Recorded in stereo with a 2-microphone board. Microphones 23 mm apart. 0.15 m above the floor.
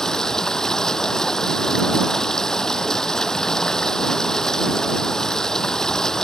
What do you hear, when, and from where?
0.0 s running water: 25° left (ahead or behind)